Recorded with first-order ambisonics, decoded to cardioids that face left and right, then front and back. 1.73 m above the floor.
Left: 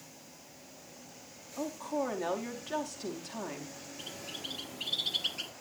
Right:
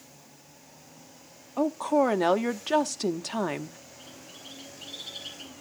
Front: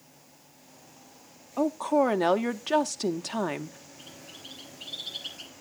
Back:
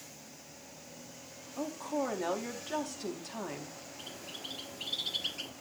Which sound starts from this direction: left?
A bird, at 4.0 s.